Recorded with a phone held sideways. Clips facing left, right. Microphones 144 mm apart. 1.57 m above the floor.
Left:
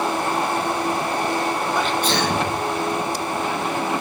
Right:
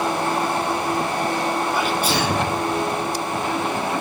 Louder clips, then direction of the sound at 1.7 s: Even; 10° right (ahead or behind).